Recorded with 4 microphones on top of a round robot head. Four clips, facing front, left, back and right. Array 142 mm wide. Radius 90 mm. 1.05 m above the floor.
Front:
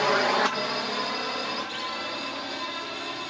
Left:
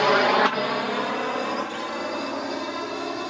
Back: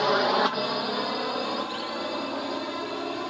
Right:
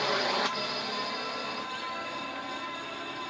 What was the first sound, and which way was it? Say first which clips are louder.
A drone: left 11 dB, back 1 dB; 105° left.